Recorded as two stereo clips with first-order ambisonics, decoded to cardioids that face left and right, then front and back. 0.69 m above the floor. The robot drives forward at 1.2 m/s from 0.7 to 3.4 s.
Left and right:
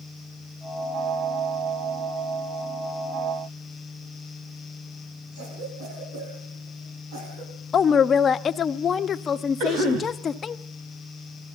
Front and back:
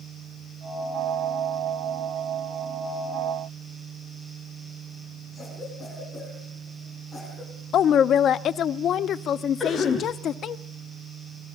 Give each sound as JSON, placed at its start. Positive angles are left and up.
{"t": 5.3, "sound": "a cough", "azimuth_deg": -85, "distance_m": 7.5}
{"t": 7.7, "sound": "a woman speaking", "azimuth_deg": 35, "distance_m": 0.6}
{"t": 9.6, "sound": "a cough", "azimuth_deg": -75, "distance_m": 3.5}